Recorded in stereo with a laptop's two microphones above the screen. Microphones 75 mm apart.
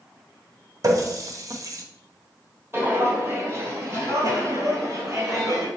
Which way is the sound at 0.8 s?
50° right (ahead or behind).